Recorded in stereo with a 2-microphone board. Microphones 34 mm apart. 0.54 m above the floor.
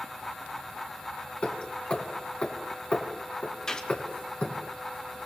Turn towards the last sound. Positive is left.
turn(degrees=20)  # may be behind; listen again after turning